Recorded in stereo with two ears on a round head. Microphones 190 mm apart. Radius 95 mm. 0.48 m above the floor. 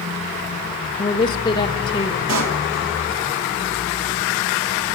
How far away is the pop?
About 3 m.